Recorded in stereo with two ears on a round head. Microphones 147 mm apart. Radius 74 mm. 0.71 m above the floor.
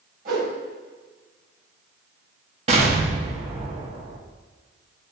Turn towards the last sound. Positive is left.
turn(degrees=-40)  # may be behind; listen again after turning